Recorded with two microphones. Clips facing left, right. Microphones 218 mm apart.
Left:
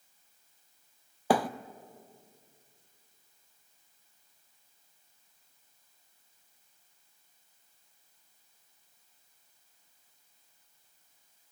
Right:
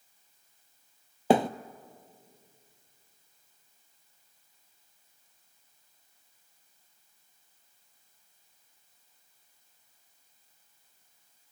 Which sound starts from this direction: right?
A thud, at 1.3 s.